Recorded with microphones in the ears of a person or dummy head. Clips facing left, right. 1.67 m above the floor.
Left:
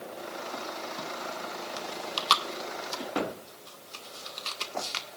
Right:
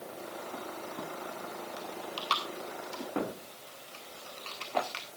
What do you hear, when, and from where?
1.8 s chewing: 70° left (ahead or behind), 1.6 m